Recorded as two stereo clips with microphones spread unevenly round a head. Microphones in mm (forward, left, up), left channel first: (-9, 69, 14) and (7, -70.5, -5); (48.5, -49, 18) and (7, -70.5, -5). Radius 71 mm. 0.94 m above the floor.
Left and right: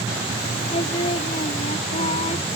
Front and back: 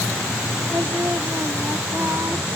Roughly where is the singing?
Behind left.